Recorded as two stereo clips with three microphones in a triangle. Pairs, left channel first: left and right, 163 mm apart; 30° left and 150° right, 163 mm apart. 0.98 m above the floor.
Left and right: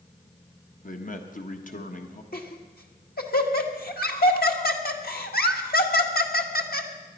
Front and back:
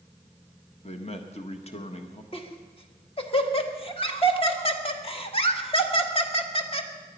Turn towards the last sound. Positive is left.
turn(degrees=80)